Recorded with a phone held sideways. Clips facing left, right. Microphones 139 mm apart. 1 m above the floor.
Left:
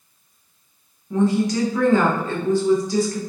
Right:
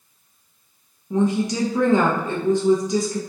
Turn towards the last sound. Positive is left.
turn(degrees=-20)  # may be behind; listen again after turning